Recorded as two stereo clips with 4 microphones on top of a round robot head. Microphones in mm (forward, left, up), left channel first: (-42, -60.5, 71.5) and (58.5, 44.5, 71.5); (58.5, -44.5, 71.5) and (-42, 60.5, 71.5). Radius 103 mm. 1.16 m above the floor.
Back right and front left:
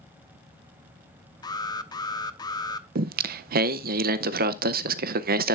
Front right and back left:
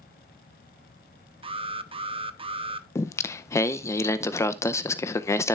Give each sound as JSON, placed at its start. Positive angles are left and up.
{"t": 1.4, "sound": "an alarm", "azimuth_deg": 170, "distance_m": 0.9}
{"t": 3.0, "sound": "singing", "azimuth_deg": 25, "distance_m": 0.5}